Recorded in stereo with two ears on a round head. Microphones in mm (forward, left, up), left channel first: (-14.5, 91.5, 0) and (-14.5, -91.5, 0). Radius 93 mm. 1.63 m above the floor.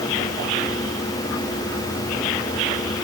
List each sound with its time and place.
Only background noise.